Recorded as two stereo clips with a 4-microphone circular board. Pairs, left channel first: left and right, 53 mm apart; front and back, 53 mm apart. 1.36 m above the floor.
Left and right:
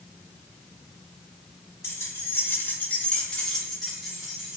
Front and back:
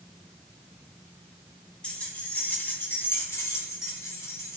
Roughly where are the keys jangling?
Left.